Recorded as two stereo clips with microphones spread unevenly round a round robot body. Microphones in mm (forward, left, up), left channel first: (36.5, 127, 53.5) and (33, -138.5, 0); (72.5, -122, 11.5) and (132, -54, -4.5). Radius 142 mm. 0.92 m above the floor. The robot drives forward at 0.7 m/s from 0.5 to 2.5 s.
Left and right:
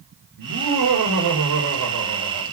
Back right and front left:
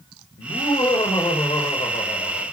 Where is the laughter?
95° right, 3.5 m; by 2.5 s 115° right, 4 m.